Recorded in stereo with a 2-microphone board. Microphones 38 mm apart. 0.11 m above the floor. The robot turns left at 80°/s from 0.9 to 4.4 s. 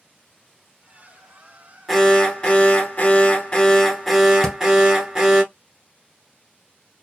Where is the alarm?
170° left, 0.8 m; by 5.4 s 30° right, 0.8 m.